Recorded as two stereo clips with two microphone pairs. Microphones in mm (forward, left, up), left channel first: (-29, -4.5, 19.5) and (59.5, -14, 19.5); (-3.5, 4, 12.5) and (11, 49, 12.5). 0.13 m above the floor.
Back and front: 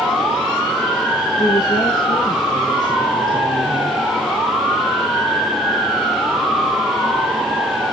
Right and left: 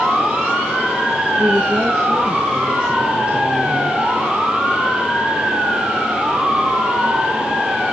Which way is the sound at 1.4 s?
140° left.